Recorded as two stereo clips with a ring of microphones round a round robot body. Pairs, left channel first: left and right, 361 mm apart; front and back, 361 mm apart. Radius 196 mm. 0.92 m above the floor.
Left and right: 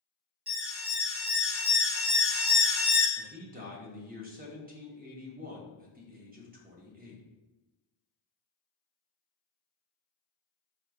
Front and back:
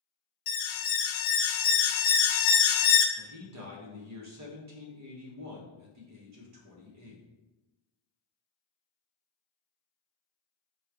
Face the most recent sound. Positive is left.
turn(degrees=-150)